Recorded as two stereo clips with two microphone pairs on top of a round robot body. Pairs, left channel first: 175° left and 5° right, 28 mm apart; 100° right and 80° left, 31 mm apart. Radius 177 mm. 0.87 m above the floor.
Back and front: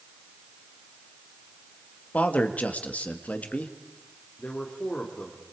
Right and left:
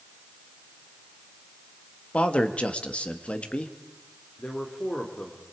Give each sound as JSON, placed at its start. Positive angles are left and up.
{"t": 2.1, "sound": "a man speaking", "azimuth_deg": -150, "distance_m": 2.0}
{"t": 4.4, "sound": "a man speaking", "azimuth_deg": -150, "distance_m": 3.0}